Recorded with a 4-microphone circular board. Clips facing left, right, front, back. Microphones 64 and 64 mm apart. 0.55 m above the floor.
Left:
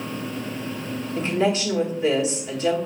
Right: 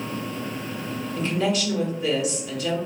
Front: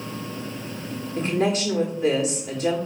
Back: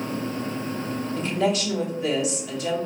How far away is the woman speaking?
About 1.4 m.